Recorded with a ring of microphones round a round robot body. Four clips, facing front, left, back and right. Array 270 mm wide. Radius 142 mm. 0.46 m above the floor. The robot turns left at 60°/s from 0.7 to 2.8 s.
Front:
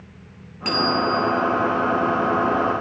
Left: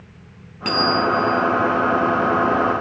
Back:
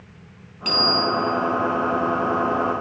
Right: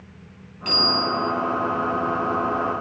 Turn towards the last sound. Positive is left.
turn(degrees=-55)